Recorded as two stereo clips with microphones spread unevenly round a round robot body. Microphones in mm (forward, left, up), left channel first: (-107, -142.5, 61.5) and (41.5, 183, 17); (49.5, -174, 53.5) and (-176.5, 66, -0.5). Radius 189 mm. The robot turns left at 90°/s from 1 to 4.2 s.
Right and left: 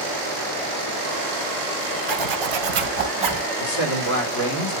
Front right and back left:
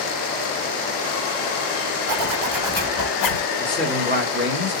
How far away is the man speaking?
About 3 m.